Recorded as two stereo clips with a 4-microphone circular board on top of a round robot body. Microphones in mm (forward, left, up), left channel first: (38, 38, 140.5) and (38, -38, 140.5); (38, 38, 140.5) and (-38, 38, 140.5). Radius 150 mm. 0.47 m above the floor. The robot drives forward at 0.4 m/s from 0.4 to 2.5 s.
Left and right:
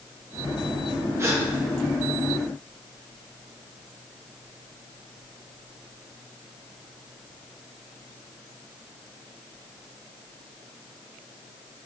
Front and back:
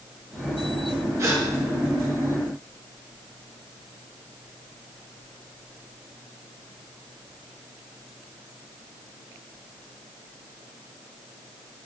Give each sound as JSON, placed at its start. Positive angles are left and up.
{"t": 1.2, "sound": "a gasp", "azimuth_deg": -135, "distance_m": 2.0}